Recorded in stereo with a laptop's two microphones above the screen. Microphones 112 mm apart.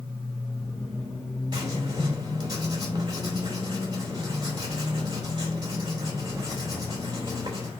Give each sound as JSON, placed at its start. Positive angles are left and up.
{"t": 1.5, "sound": "writing", "side_deg": -40, "distance_m": 3.0}